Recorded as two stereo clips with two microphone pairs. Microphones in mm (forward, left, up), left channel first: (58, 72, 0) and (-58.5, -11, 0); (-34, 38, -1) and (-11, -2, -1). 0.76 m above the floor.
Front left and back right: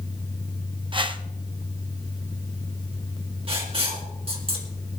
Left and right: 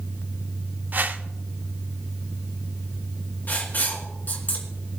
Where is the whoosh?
100° right, 0.7 m.